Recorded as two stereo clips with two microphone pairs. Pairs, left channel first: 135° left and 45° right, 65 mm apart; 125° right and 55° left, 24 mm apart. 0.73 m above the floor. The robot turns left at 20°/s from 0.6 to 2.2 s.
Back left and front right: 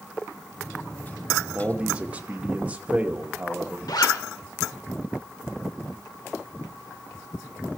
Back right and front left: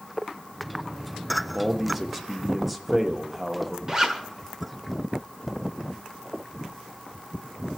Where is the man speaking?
10° right, 0.9 m; by 3.8 s 25° right, 0.9 m.